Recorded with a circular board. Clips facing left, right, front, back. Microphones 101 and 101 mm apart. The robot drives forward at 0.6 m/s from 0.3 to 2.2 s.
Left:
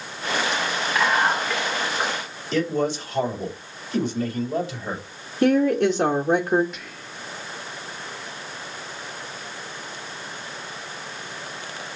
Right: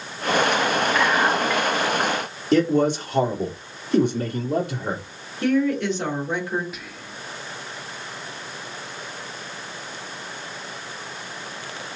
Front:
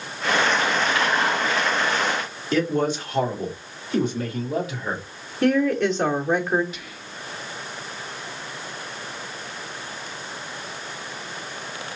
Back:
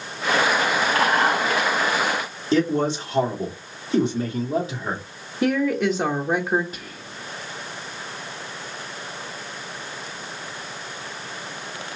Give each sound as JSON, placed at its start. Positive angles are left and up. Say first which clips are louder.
{"t": 0.9, "sound": "whispering", "louder": "left 3 dB, back 2 dB", "azimuth_deg": 175, "distance_m": 0.6}
{"t": 2.5, "sound": "a man speaking", "louder": "right 5 dB, back 2 dB", "azimuth_deg": -120, "distance_m": 2.0}
{"t": 5.4, "sound": "a woman speaking", "louder": "left 3 dB, front 1 dB", "azimuth_deg": 100, "distance_m": 0.8}
{"t": 6.7, "sound": "whispering", "louder": "right 1 dB, back 1 dB", "azimuth_deg": -175, "distance_m": 0.5}